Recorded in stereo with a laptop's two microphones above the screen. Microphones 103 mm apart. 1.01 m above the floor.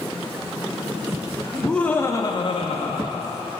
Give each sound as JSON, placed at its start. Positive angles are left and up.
{"t": 1.5, "sound": "laughter", "side_deg": 0, "distance_m": 1.5}